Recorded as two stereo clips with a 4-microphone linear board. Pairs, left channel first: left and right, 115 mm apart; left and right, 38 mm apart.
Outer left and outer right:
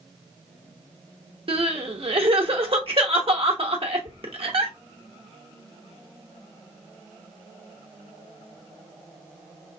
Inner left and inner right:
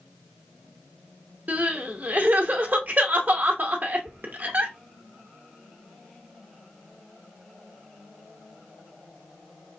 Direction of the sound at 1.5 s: 55° right (ahead or behind).